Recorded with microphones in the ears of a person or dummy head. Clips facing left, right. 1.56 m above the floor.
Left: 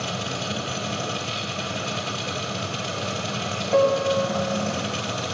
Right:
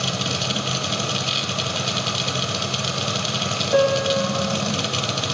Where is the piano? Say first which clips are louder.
Right 1 dB; 20° right (ahead or behind), 1.5 m.